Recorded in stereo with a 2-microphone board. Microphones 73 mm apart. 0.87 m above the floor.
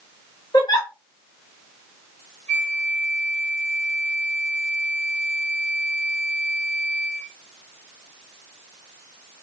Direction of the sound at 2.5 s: 20° left (ahead or behind).